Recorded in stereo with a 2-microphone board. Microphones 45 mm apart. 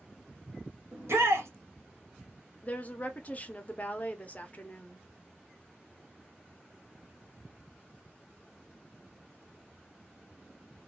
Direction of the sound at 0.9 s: 75° right (ahead or behind).